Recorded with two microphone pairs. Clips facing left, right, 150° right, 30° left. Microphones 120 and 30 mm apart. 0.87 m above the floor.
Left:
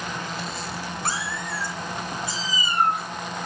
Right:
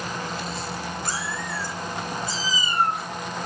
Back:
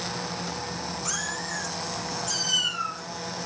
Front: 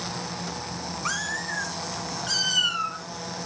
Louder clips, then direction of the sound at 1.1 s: Left 1 dB, front 6 dB; 70° left.